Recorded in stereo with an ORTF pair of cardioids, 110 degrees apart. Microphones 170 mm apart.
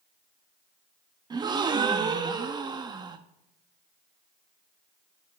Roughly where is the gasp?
Ahead right.